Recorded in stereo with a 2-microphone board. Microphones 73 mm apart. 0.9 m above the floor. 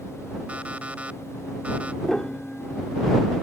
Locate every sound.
0.5 s an alarm clock: 20° right (ahead or behind)
2.0 s a piano: 5° left (ahead or behind)